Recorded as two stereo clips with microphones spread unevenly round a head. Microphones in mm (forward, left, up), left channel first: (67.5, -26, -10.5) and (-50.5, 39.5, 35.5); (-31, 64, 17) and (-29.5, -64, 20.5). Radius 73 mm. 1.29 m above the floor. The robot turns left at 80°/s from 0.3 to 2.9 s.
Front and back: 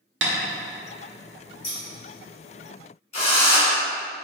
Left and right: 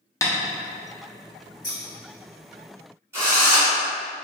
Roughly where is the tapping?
Behind left.